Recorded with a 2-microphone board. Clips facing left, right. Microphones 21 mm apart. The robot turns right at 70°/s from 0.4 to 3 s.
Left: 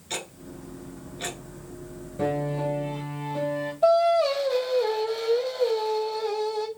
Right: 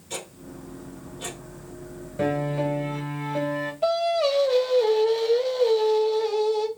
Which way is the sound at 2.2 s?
140° right.